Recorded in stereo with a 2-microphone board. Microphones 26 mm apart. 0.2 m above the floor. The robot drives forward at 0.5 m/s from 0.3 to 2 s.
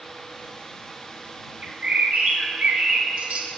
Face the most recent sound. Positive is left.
turn(degrees=-55)  # may be behind; listen again after turning